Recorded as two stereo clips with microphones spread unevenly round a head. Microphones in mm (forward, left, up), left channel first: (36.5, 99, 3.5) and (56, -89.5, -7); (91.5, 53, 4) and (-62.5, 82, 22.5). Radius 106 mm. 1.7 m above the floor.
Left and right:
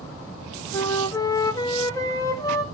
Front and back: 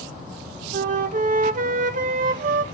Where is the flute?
165° left, 0.8 m.